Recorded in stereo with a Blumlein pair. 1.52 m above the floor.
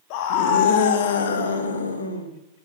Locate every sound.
0.1 s a scream: 45° left, 2 m; by 2.3 s 75° left, 2.5 m